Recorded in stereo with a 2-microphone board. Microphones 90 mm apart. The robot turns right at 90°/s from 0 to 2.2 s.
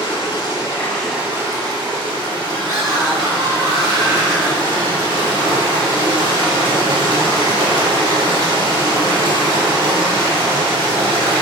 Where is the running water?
85° left, 0.7 m; by 11.4 s 75° right, 0.7 m.